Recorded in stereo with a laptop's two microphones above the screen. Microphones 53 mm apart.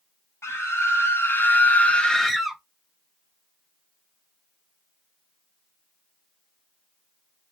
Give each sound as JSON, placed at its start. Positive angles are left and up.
{"t": 0.4, "sound": "a scream", "side_deg": 65, "distance_m": 1.2}